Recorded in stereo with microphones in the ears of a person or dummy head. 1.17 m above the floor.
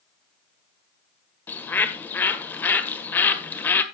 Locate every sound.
1.5 s a bird: 20° left (ahead or behind), 1.4 m